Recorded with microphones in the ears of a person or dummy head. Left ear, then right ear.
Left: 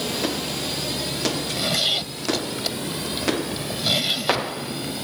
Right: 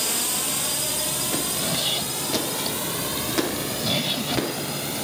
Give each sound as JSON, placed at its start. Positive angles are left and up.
{"t": 0.0, "sound": "a drone", "side_deg": -45}
{"t": 1.3, "sound": "a zipper", "side_deg": 10}